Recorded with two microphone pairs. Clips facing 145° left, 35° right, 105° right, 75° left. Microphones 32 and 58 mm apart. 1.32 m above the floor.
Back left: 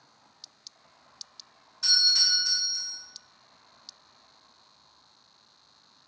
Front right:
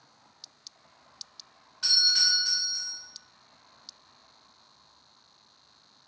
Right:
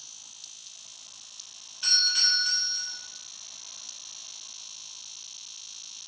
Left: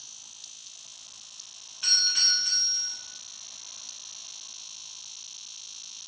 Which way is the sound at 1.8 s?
10° right.